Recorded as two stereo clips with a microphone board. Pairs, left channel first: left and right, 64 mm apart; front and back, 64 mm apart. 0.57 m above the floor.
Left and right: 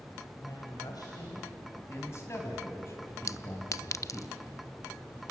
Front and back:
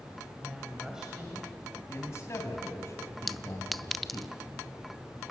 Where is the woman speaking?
100° left, 3.5 m.